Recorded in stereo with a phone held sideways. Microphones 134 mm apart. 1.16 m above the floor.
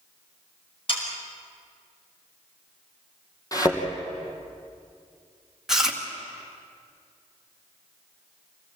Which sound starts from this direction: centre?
Chewing, at 5.7 s.